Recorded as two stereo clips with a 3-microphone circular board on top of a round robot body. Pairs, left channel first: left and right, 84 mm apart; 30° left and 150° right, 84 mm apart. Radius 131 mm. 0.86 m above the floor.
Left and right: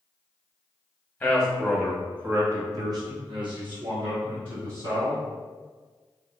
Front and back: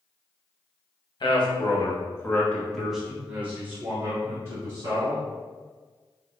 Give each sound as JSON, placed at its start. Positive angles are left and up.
{"t": 1.2, "sound": "a man speaking", "azimuth_deg": 15, "distance_m": 1.5}